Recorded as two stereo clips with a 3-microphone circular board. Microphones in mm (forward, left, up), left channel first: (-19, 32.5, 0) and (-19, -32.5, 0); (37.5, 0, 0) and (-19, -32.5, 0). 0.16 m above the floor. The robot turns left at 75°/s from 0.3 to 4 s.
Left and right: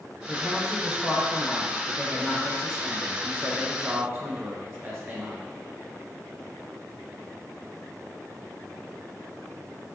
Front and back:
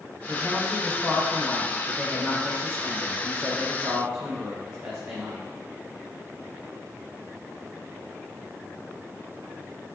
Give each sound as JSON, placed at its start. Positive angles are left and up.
{"t": 0.3, "sound": "a woman speaking", "azimuth_deg": -170, "distance_m": 1.3}